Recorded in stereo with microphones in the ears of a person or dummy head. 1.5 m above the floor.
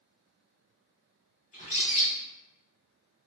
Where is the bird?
40° left (ahead or behind), 1.1 m.